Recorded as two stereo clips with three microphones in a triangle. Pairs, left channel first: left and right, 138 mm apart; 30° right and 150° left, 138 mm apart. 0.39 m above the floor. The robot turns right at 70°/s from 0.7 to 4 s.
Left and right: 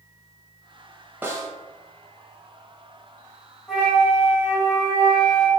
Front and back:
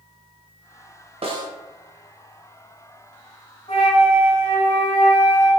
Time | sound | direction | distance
1.2 | a snare drum | 165° right | 0.6 m
3.7 | a flute | straight ahead | 1.1 m